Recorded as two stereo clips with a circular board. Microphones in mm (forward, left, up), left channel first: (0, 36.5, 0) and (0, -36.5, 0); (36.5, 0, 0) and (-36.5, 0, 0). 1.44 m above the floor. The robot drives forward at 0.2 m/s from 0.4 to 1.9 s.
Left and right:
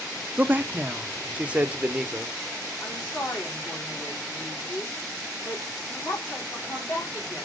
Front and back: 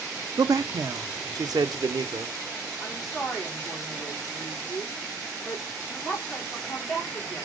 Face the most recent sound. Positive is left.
turn(degrees=85)